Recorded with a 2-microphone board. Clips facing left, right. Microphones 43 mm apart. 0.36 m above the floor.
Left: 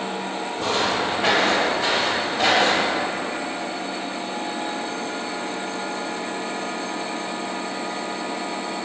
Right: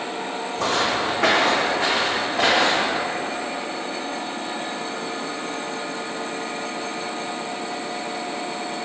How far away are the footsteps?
About 1.1 m.